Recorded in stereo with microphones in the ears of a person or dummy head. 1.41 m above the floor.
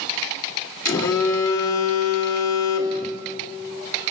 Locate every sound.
0.8 s a phone buzzing: 20° left (ahead or behind), 2.5 m